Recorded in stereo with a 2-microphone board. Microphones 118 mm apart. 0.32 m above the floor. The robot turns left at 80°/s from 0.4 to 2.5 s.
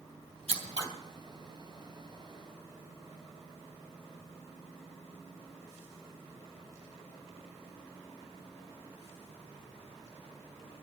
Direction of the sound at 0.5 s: 60° right (ahead or behind).